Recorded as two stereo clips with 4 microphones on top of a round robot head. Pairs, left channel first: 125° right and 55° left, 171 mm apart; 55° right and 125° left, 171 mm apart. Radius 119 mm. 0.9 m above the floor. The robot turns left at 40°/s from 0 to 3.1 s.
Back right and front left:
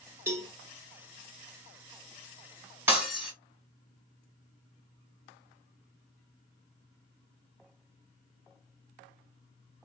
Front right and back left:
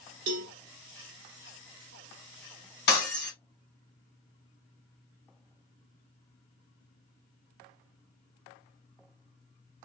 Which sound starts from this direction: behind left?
A cowbell, at 0.3 s.